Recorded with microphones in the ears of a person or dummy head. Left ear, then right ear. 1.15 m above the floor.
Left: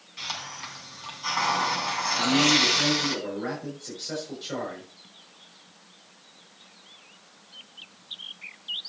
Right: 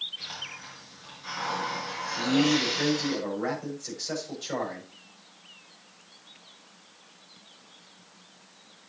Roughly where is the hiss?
Left.